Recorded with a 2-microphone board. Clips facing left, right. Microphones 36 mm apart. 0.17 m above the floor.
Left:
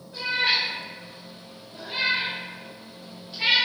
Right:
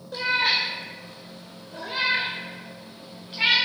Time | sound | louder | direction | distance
0.1 | a cat meowing | right 1 dB | 70° right (ahead or behind) | 1.3 m